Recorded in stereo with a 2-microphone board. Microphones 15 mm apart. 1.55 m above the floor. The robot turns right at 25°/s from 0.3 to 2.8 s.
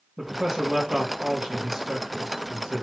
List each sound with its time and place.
0.2 s a man speaking: 140° right, 2.5 m; by 2.8 s 80° right, 2.5 m